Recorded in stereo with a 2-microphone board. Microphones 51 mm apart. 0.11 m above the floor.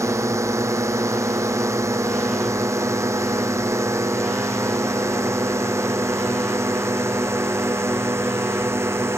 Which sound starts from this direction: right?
A drone, at 0.0 s.